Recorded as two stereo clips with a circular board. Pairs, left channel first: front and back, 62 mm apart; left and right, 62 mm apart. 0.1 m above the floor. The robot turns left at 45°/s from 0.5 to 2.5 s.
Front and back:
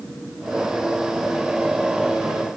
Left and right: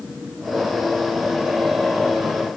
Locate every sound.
Only background noise.